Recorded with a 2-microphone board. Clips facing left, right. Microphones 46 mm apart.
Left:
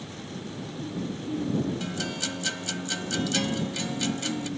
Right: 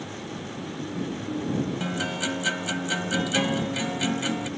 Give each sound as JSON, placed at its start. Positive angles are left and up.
{"t": 1.8, "sound": "a guitar", "side_deg": -25}